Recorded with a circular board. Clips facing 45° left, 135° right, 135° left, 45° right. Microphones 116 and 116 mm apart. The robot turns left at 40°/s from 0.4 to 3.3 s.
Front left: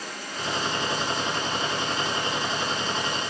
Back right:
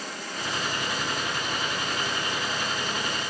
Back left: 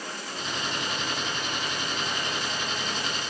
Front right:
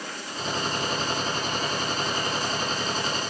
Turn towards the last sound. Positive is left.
No sound to turn to.